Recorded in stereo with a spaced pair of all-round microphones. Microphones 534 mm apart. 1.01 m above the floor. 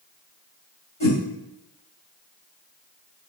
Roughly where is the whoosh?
Left.